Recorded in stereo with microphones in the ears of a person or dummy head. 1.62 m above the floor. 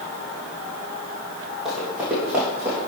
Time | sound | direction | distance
1.6 | running footsteps | 5° right (ahead or behind) | 3 m